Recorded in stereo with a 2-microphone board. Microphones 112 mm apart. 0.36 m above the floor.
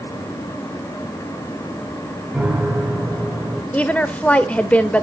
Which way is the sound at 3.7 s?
10° left (ahead or behind).